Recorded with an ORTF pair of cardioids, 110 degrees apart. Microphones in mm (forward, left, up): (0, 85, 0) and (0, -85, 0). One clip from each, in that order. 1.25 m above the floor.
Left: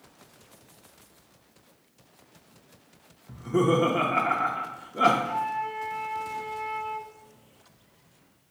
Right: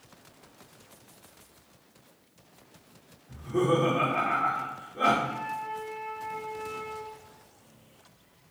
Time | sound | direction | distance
3.3 | laughter | 45° left | 0.8 m
5.2 | a flute | 30° left | 0.6 m